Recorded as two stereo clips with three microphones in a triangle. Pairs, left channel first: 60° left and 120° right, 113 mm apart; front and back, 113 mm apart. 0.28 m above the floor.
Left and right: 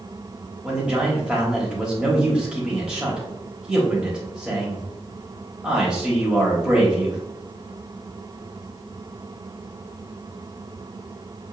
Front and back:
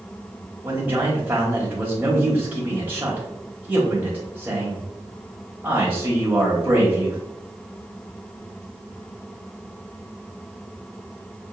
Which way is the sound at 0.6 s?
175° left.